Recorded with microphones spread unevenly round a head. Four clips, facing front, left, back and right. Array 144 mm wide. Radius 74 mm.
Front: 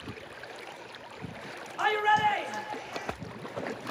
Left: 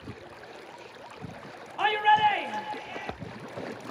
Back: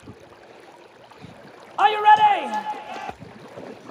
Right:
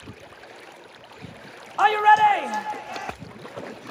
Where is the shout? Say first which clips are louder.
Right 6 dB, back 11 dB; 145° right, 0.7 m.